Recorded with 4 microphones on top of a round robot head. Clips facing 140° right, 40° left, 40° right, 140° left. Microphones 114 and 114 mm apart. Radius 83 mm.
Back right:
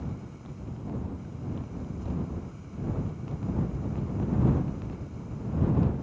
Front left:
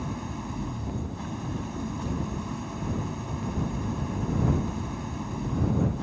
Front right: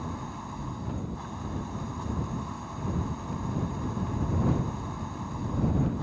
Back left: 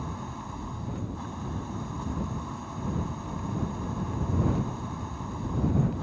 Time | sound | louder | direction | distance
0.0 | an engine running | front left 6 dB, even | 50° left | ?